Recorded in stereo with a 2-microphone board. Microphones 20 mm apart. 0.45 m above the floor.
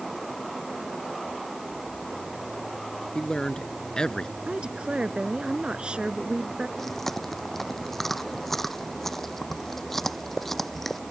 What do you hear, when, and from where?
3.1 s a man speaking: 50° left (ahead or behind)
4.5 s a woman speaking: 70° right (ahead or behind)
6.8 s chewing: 15° left (ahead or behind)